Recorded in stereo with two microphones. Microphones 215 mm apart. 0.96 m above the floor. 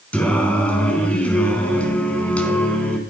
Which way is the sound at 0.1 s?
5° left (ahead or behind).